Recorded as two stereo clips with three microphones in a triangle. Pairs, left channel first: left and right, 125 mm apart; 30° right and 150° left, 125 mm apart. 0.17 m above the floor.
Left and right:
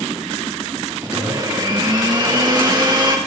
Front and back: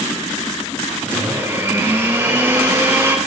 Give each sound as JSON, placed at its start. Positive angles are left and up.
{"t": 1.0, "sound": "a blender", "azimuth_deg": -140, "distance_m": 4.0}